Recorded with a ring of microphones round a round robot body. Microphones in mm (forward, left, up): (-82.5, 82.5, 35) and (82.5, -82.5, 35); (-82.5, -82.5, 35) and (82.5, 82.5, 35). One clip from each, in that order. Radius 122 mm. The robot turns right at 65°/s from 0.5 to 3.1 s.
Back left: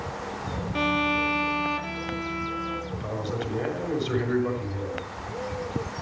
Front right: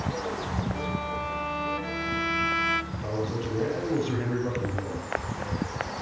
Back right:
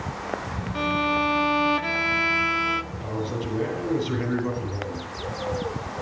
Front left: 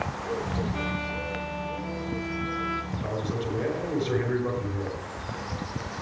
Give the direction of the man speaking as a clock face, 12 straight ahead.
8 o'clock.